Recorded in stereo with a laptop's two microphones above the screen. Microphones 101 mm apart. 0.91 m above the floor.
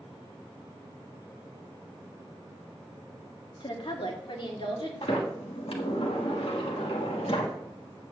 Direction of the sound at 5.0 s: 65° left (ahead or behind).